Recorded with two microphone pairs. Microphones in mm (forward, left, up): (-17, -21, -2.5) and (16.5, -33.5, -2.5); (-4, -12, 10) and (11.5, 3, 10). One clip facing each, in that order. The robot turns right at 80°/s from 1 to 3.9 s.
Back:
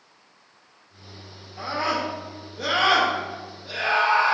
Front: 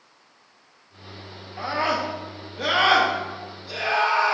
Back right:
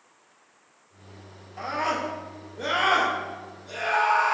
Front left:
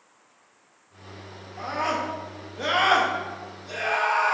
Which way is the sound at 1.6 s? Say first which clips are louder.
Front 1 dB, even; 60° right.